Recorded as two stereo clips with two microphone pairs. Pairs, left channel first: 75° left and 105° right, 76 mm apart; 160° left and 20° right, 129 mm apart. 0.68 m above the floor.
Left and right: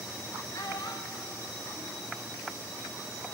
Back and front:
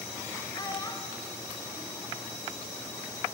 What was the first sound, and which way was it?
A child speaking, 100° left.